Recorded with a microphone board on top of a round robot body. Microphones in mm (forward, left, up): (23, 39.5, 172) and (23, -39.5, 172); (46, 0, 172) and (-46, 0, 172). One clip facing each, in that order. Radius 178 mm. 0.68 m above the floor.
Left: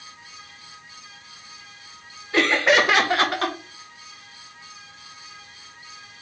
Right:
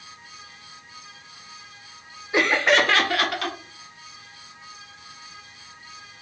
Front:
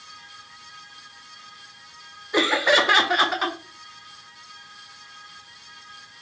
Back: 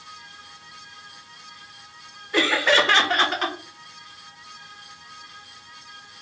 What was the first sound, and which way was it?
Laughter, 45° right.